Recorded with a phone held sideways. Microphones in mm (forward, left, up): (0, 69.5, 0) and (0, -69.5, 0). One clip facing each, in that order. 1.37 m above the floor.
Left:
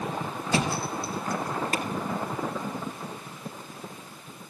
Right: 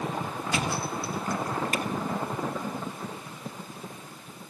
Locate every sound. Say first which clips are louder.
0.5 s a thud: left 3 dB; 35° left (ahead or behind), 3.5 m